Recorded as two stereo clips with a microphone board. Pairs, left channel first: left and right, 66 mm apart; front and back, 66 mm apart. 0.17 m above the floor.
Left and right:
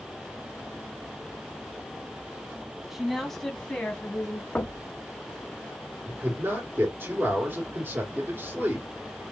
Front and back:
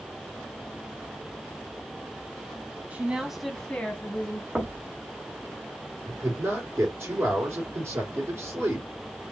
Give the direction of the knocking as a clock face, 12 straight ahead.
8 o'clock.